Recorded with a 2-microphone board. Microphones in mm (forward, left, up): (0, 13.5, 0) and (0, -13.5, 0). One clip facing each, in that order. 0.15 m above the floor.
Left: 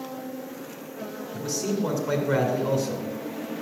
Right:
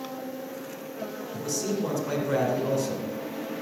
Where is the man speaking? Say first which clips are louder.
Left 2 dB; 20° left (ahead or behind), 2 m.